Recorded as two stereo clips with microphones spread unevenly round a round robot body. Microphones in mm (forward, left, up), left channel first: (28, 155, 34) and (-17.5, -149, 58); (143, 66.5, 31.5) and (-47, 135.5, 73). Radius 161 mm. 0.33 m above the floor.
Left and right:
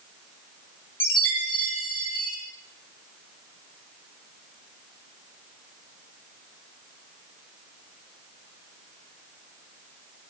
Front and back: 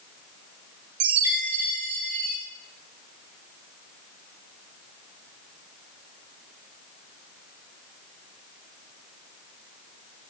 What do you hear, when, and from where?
1.0 s a chime: 165° left, 5.5 m